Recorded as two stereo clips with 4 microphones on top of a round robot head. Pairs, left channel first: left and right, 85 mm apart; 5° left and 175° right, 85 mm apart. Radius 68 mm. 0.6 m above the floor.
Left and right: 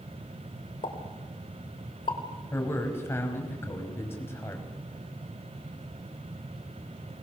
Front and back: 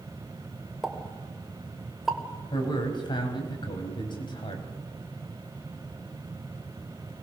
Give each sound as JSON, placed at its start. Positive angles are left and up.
{"t": 0.8, "sound": "a pop", "azimuth_deg": 95, "distance_m": 3.0}
{"t": 2.5, "sound": "a man speaking", "azimuth_deg": 30, "distance_m": 5.0}